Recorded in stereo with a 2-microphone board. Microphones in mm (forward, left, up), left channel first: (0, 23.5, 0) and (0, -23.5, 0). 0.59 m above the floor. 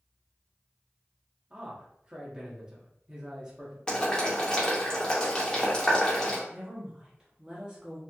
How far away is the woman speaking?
About 1.2 m.